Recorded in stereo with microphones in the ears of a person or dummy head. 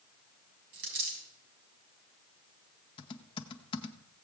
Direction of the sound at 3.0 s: 30° left (ahead or behind).